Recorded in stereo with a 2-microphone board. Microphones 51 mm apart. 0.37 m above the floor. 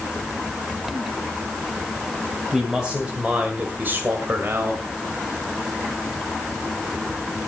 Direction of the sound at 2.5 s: 10° right (ahead or behind).